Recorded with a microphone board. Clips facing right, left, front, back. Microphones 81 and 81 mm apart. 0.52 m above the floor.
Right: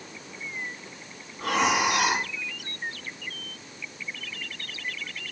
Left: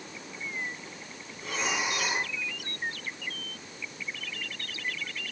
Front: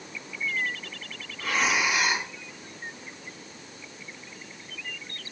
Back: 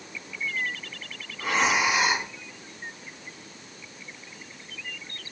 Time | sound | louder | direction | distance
1.4 | breathing | right 8 dB, back 2 dB | 115° right | 2.5 m